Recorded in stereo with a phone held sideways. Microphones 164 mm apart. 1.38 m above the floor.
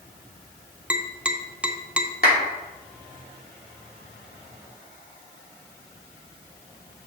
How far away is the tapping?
About 0.7 m.